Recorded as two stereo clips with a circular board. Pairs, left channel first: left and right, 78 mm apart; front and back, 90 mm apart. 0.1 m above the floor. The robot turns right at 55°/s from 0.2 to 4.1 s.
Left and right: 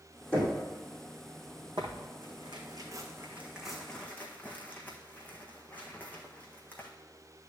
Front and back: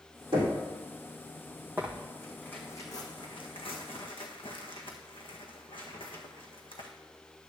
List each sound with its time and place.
0.3 s knocking: 160° left, 4 m; by 0.6 s 175° left, 4 m
1.8 s tearing paper: 110° right, 1.3 m; by 6.9 s 20° left, 1.3 m